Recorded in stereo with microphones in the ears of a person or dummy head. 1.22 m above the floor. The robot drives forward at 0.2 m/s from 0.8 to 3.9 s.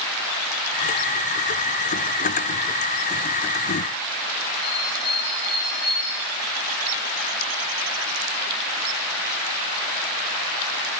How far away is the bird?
About 3.5 m.